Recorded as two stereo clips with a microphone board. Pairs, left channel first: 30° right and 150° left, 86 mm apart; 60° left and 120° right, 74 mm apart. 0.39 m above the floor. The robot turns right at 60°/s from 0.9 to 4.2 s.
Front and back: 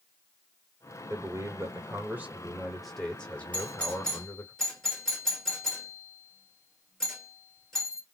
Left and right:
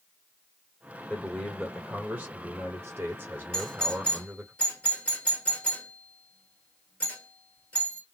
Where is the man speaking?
130° left, 1.3 m; by 4.5 s 40° right, 1.3 m.